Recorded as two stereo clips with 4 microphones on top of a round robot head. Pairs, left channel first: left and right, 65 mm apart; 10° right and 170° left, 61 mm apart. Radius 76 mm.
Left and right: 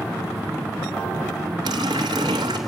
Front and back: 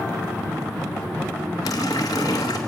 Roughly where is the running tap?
Ahead right.